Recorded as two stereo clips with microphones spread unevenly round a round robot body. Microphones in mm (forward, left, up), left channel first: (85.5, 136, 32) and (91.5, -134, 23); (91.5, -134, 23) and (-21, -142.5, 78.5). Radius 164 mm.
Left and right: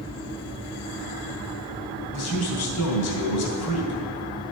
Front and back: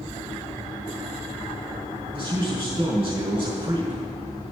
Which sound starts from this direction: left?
A man speaking, at 2.1 s.